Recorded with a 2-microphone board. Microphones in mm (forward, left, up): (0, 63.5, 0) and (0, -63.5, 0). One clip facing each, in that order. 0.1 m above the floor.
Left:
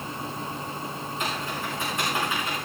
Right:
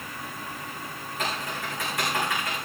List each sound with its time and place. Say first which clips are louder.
1.2 s typing on a keyboard: right 1 dB; 75° right (ahead or behind), 7.5 m